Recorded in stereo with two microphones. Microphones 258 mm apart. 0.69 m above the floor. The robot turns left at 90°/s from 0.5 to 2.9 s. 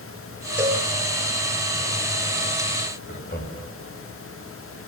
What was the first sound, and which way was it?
A cowbell, 10° right (ahead or behind).